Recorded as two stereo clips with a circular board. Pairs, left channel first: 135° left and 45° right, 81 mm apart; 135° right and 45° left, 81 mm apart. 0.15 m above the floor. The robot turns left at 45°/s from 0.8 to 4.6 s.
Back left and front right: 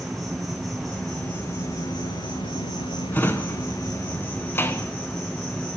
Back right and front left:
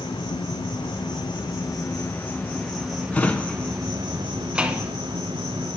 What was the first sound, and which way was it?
An insect, 135° right.